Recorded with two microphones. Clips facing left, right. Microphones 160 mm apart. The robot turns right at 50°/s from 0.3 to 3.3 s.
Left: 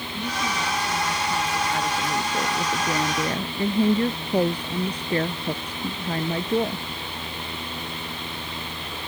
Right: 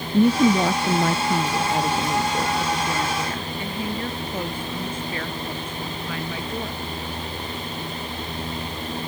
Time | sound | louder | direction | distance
0.1 | a woman speaking | right 13 dB | 105° right | ?